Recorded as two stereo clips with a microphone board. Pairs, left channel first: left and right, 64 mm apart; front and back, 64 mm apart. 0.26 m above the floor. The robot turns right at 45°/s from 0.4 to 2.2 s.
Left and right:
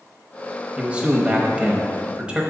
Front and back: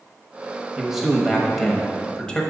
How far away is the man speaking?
About 1.0 m.